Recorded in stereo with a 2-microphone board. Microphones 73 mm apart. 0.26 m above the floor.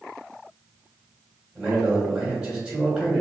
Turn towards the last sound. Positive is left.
turn(degrees=-15)  # may be behind; listen again after turning